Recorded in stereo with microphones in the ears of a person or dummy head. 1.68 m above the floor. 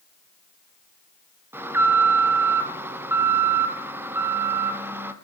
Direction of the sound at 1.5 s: 10° right (ahead or behind).